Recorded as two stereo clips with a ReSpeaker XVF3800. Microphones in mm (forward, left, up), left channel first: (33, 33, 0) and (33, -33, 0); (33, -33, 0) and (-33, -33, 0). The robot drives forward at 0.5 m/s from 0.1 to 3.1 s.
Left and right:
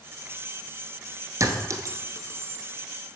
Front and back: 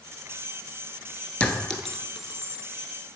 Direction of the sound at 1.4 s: 70° right.